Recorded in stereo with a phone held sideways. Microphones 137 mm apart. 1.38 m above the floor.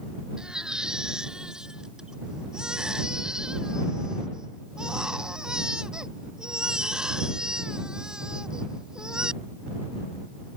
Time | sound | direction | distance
0.4 | a baby crying | 5° right (ahead or behind) | ?